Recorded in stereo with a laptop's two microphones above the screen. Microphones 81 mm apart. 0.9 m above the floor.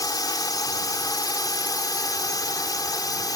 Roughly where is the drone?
Left.